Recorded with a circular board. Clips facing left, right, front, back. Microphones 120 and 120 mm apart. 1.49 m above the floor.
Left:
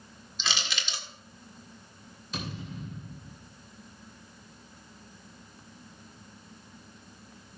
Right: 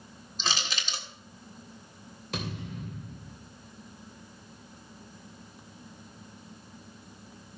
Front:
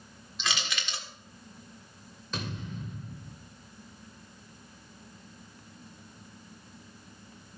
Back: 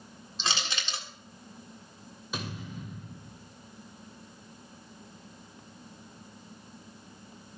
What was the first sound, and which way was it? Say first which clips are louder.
Crushing: right 1 dB, back 1 dB; 130° right.